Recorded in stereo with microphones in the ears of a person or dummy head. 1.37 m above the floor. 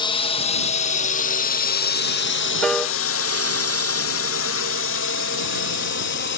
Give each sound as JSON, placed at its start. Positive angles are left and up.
{"t": 0.0, "sound": "a drone", "side_deg": 25}
{"t": 2.6, "sound": "a piano", "side_deg": 0}